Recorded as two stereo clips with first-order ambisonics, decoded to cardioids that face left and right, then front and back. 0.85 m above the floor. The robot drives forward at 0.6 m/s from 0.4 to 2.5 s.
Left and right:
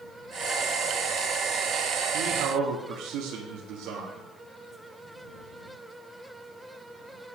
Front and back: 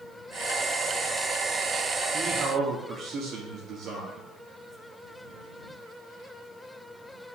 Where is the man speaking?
120° right, 1.7 m; by 4.3 s 125° right, 1.8 m.